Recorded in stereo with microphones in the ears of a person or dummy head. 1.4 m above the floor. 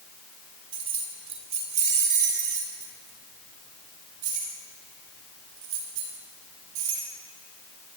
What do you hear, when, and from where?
0.7 s keys jangling: 30° right (ahead or behind), 3 m; by 7.0 s 70° right (ahead or behind), 5 m